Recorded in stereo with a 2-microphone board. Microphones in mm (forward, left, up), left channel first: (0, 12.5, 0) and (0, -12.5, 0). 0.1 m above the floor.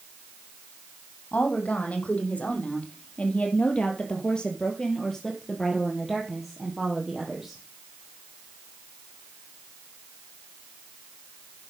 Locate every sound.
1.3 s a woman speaking: 70° left (ahead or behind), 3.5 m; by 7.6 s 10° right (ahead or behind), 3 m